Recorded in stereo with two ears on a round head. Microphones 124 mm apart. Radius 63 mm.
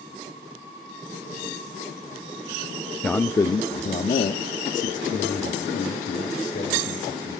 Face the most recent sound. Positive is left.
turn(degrees=65)  # may be behind; listen again after turning